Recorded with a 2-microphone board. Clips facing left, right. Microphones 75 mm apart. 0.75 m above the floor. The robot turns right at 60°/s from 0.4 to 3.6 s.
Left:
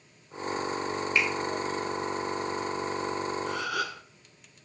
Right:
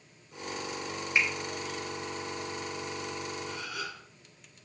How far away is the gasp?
About 0.7 m.